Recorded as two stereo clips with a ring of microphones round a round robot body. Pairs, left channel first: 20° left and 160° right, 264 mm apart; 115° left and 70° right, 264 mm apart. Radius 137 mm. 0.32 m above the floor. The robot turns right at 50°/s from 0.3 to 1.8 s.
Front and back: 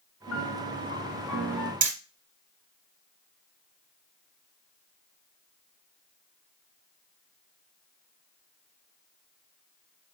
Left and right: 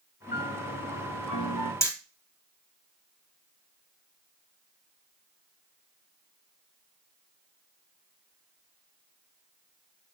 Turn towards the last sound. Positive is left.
turn(degrees=-165)